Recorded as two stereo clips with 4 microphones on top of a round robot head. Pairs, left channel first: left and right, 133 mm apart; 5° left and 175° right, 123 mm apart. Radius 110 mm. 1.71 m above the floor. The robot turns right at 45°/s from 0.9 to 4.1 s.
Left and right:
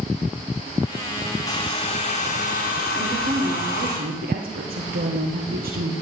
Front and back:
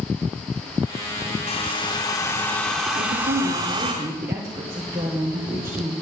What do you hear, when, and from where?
1.5 s a hair dryer: 30° left, 2.5 m; by 3.9 s 140° left, 2.5 m
2.9 s a woman speaking: 150° right, 1.8 m; by 5.9 s 100° right, 1.8 m